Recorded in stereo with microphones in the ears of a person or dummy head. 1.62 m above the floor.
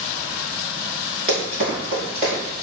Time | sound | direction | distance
1.3 | running footsteps | 35° right (ahead or behind) | 2.0 m